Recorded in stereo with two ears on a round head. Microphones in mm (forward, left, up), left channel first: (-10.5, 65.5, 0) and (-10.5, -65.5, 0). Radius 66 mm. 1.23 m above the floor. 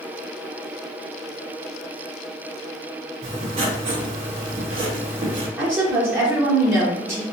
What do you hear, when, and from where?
3.2 s writing: 40° right (ahead or behind), 0.9 m
5.6 s a woman speaking: 15° right (ahead or behind), 0.7 m